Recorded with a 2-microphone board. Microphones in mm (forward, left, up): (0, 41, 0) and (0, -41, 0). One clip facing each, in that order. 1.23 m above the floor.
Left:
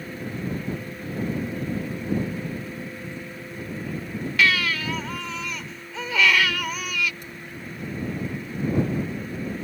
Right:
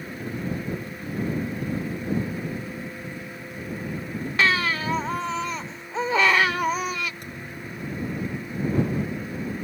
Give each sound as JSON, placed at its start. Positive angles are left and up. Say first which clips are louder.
{"t": 4.4, "sound": "a baby crying", "louder": "even", "side_deg": -35}
{"t": 7.2, "sound": "a thud", "louder": "right 1 dB", "side_deg": -60}